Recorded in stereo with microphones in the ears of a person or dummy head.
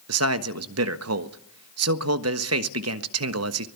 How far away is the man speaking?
About 1.3 m.